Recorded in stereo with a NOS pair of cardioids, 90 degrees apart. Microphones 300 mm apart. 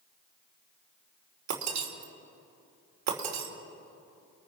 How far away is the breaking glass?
About 3 m.